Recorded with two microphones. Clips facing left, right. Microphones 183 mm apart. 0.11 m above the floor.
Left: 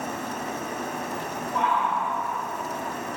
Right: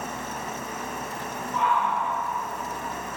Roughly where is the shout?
Left.